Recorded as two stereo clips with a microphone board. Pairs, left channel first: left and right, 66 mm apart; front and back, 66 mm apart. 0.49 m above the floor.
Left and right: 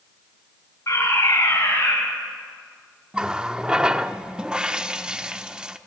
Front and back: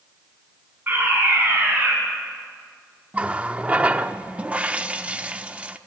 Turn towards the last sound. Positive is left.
turn(degrees=-150)